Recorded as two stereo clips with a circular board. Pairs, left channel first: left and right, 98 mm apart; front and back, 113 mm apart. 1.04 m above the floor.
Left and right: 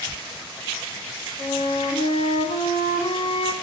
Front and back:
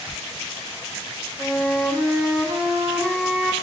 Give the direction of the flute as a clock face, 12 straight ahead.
9 o'clock.